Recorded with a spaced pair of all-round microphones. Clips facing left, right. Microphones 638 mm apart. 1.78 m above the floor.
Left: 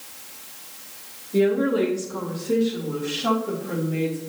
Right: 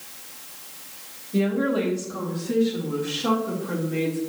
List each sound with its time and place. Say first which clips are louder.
1.3 s a woman speaking: left 3 dB; 25° right (ahead or behind), 2.5 m; by 4.2 s 10° left (ahead or behind), 4 m